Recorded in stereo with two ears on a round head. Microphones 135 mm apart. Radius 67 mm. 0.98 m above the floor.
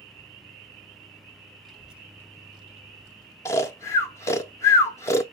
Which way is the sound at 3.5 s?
20° left (ahead or behind).